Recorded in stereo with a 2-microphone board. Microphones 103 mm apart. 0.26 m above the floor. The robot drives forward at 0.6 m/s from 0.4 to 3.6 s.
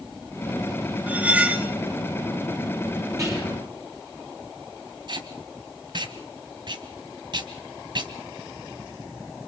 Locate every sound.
1.1 s cutlery clinking: 15° right (ahead or behind), 2 m
3.2 s whispering: 30° right (ahead or behind), 9.5 m
5.1 s tape being pulled: 50° right (ahead or behind), 1.8 m